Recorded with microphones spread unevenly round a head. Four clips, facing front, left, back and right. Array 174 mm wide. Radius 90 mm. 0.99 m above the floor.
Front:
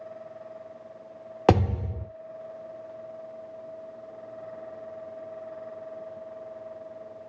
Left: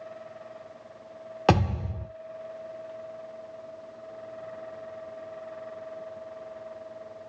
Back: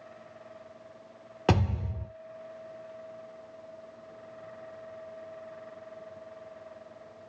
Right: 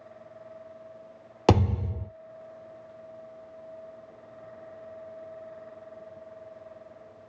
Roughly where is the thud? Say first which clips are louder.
Right 1 dB, front 6 dB; ahead.